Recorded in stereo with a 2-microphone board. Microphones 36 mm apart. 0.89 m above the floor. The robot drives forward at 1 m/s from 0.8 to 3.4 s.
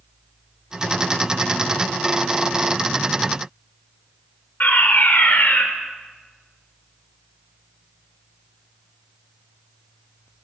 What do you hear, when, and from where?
4.6 s a fire alarm: 60° left (ahead or behind), 5 m